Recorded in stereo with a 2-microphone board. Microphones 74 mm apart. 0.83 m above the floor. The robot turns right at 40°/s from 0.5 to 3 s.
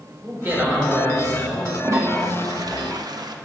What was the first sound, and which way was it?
A man speaking, 150° right.